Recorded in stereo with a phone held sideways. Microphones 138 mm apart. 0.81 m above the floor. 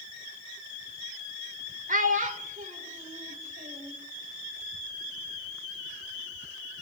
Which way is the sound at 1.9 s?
70° right (ahead or behind).